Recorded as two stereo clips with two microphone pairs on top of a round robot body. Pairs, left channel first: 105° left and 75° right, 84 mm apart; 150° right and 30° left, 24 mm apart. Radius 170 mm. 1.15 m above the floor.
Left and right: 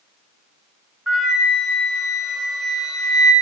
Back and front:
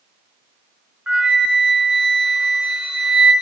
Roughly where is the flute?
Ahead.